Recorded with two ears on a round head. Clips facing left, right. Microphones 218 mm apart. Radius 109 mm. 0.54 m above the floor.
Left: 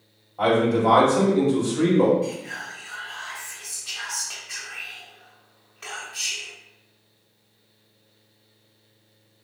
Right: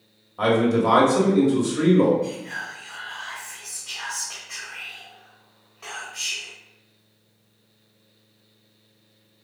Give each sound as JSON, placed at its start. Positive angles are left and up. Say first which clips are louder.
{"t": 0.4, "sound": "a man speaking", "louder": "right 1 dB", "side_deg": -25, "distance_m": 1.3}
{"t": 2.2, "sound": "whispering", "louder": "even", "side_deg": 25, "distance_m": 1.6}